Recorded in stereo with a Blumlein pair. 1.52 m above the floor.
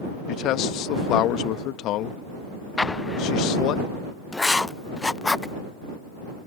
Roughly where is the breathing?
No breathing in this recording.